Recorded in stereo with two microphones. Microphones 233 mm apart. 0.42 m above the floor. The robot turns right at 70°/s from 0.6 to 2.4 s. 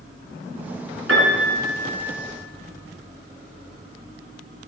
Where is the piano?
70° right, 4 m; by 2.0 s 5° right, 4 m.